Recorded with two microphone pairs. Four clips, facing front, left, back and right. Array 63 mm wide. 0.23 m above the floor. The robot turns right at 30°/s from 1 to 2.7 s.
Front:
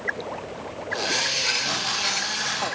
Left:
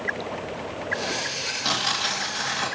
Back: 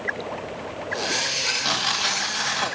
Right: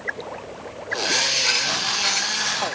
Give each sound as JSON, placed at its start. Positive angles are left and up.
{"t": 1.6, "sound": "tearing paper", "azimuth_deg": 150, "distance_m": 2.5}